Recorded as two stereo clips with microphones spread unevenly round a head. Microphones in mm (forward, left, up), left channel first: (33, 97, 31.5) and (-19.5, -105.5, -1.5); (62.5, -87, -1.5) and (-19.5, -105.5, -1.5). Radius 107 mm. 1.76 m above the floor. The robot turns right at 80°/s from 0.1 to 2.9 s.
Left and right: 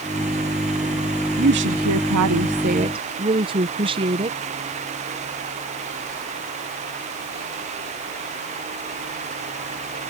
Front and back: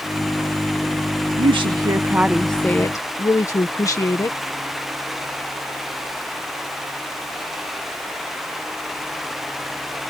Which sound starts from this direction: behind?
A woman speaking, at 1.4 s.